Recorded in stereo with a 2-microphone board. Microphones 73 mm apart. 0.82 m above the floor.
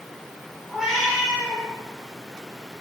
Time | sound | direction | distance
0.7 | a cat meowing | 10° right (ahead or behind) | 3.5 m